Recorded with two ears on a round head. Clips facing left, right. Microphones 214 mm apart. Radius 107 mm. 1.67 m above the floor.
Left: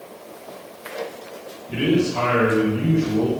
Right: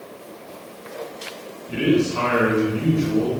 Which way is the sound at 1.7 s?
Centre (ahead or behind).